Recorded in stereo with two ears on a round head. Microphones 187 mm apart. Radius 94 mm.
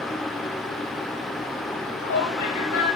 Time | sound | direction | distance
1.7 | a shout | 90° left | 8.5 m